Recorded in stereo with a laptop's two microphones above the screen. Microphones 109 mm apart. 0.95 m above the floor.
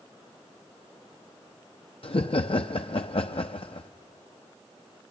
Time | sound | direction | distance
2.0 | laughter | 60° left (ahead or behind) | 0.6 m